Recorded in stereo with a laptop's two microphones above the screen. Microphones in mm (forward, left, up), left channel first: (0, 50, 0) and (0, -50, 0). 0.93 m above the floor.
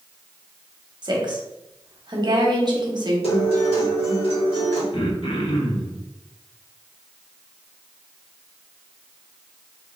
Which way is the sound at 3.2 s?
75° left (ahead or behind).